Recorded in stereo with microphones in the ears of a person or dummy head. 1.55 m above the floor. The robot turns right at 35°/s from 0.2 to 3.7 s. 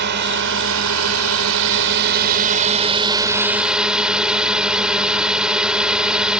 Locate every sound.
0.0 s a drone: 125° right; by 6.4 s straight ahead